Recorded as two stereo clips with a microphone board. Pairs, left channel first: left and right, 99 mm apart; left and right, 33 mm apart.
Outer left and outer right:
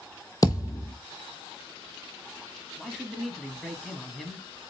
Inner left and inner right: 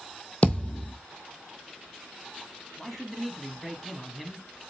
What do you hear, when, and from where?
0.4 s a thud: 35° left (ahead or behind), 1.0 m
2.8 s a man speaking: centre (ahead or behind), 1.1 m